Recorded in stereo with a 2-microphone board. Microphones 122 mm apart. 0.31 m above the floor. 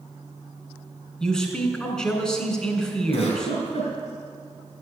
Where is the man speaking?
5° left (ahead or behind), 3 m.